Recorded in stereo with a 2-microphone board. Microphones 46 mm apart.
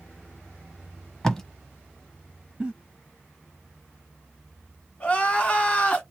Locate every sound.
1.2 s tape being pulled: 10° left (ahead or behind), 0.9 m
2.6 s a giggle: 20° right (ahead or behind), 1.5 m
5.0 s crying: 30° left (ahead or behind), 1.6 m